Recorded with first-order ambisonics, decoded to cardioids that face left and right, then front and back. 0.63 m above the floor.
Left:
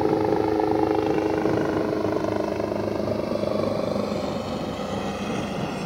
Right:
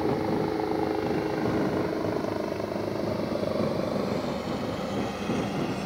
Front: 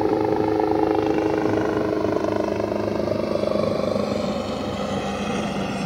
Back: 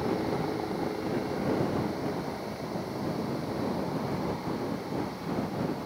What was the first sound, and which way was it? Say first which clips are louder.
A helicopter: left 6 dB, front 10 dB; 35° left.